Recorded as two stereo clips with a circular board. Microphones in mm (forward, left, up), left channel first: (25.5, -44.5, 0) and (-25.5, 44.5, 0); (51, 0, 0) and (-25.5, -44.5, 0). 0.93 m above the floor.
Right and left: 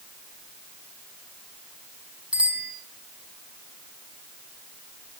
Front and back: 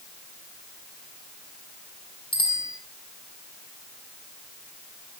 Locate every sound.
2.3 s a bicycle bell: 40° left, 5.5 m